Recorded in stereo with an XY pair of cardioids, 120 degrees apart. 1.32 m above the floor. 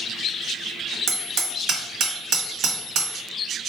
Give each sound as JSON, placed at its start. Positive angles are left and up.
{"t": 1.1, "sound": "hammering", "azimuth_deg": -70, "distance_m": 1.4}